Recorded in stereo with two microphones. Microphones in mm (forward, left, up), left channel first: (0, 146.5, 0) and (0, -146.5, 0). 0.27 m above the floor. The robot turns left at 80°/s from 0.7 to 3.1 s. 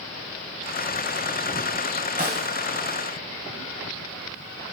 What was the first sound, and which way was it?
A snare drum, 30° right (ahead or behind).